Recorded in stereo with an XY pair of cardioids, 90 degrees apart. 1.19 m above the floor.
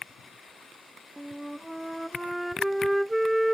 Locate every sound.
1.2 s a flute: straight ahead